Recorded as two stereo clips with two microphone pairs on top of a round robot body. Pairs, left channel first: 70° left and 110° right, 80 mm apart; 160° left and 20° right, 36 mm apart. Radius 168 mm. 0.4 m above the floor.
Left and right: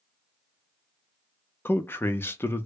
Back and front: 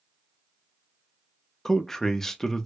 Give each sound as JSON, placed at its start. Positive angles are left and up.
{"t": 1.6, "sound": "a man speaking", "azimuth_deg": 75, "distance_m": 0.8}